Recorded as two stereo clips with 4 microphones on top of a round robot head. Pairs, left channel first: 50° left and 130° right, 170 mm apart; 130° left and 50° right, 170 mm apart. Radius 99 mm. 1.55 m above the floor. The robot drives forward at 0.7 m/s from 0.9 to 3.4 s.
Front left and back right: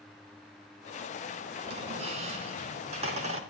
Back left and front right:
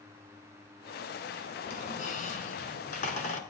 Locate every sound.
1.6 s a squeak: 175° left, 3 m